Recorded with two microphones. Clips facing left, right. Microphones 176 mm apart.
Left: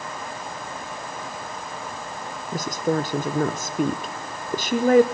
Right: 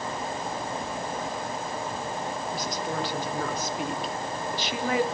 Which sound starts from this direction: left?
A woman speaking, at 2.5 s.